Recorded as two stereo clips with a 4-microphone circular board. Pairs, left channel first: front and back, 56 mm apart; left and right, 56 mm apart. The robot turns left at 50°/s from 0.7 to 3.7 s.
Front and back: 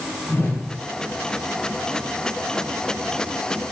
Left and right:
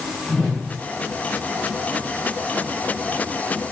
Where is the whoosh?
25° left, 0.8 m.